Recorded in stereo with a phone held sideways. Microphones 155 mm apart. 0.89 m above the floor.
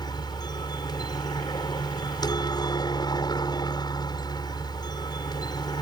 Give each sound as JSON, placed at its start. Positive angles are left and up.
{"t": 0.0, "sound": "a helicopter", "side_deg": 25}